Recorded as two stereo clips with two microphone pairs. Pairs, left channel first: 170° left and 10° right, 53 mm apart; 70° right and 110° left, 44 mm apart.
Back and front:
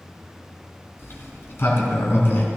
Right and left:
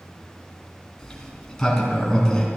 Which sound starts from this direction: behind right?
A sliding door, at 1.0 s.